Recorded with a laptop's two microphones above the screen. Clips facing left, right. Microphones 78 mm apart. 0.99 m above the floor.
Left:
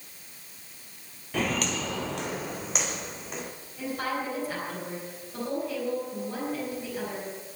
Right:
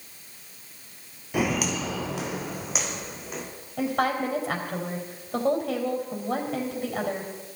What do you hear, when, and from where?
1.3 s footsteps: 10° right (ahead or behind), 1.1 m; by 3.5 s centre (ahead or behind), 3 m
3.8 s a woman speaking: 65° right (ahead or behind), 4 m